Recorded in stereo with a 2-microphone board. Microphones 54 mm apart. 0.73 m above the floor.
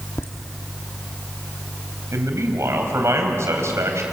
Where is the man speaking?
60° right (ahead or behind), 4 m.